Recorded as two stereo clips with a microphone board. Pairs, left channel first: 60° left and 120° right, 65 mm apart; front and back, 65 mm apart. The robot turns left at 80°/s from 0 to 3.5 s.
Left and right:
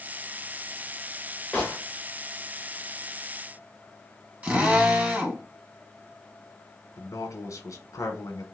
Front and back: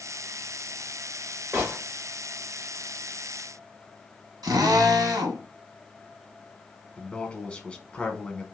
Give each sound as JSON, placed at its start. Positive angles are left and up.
{"t": 1.5, "sound": "a gunshot", "azimuth_deg": 135, "distance_m": 1.4}
{"t": 4.4, "sound": "a drill", "azimuth_deg": 175, "distance_m": 1.0}
{"t": 7.0, "sound": "a man speaking", "azimuth_deg": 65, "distance_m": 1.1}